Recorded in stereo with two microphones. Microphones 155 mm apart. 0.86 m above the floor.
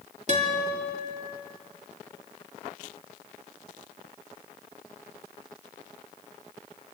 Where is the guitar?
50° right (ahead or behind), 2.5 m.